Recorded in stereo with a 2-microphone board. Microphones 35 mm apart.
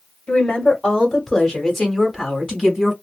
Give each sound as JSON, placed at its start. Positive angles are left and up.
{"t": 0.3, "sound": "a woman speaking", "side_deg": 20, "distance_m": 1.6}